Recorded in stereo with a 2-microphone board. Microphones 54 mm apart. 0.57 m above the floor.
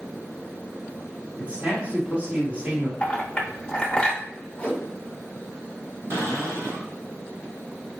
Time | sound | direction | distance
1.4 | a man speaking | 20° right (ahead or behind) | 1.2 m
3.0 | a clink | 20° left (ahead or behind) | 0.8 m
4.6 | a whoosh | 20° left (ahead or behind) | 1.1 m
6.1 | a cupboard door | 60° right (ahead or behind) | 1.2 m